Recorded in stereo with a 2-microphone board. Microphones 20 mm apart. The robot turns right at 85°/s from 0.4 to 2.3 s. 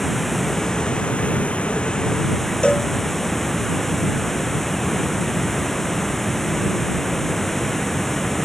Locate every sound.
0.0 s running water: 10° left; by 8.4 s 170° left
2.6 s a cowbell: 60° left (ahead or behind)